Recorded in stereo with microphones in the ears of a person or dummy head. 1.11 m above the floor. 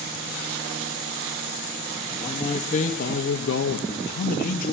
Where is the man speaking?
25° left (ahead or behind), 1.9 m; by 4.7 s 45° left (ahead or behind), 2 m.